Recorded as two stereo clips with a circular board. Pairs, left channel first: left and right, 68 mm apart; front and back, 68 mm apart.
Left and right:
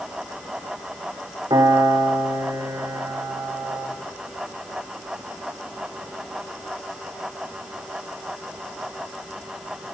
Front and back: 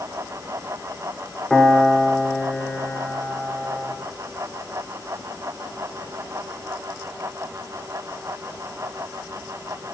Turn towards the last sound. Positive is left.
turn(degrees=-80)